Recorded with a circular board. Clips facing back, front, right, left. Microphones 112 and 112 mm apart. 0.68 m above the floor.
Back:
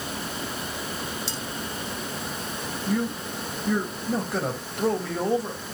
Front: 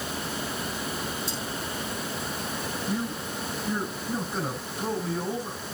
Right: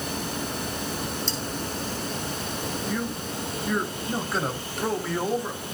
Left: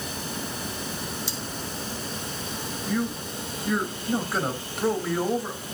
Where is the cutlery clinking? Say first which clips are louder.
Even, right 4 dB; 170° left, 3 m.